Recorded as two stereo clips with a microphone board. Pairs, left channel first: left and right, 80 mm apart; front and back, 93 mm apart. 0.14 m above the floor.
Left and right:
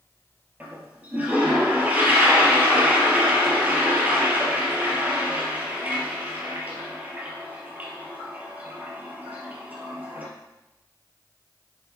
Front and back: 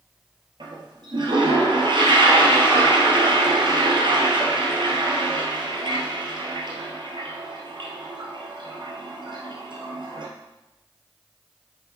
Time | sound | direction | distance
0.6 | a toilet flushing | 160° right | 2 m